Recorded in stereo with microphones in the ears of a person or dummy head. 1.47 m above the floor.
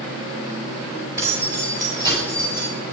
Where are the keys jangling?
15° right (ahead or behind), 6 m; by 2.7 s 25° right (ahead or behind), 6.5 m.